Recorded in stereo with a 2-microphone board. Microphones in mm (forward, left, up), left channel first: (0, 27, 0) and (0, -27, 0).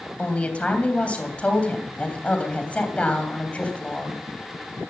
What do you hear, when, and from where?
0.2 s a woman speaking: 25° left (ahead or behind), 3 m